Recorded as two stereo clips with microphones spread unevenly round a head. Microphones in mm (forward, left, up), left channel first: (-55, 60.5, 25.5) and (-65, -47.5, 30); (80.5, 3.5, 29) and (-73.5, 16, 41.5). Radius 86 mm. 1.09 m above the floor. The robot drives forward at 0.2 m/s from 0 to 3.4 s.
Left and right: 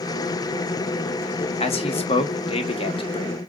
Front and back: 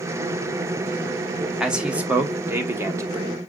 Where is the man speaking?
90° left, 1.1 m; by 3.4 s 110° left, 1.1 m.